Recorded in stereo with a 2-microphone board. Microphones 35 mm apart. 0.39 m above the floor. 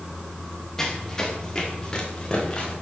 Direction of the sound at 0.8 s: 20° left (ahead or behind).